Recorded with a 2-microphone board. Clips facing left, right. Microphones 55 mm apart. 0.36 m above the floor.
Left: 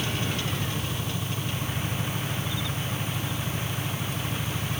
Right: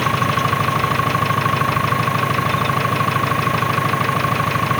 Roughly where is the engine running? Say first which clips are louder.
Right 13 dB; right.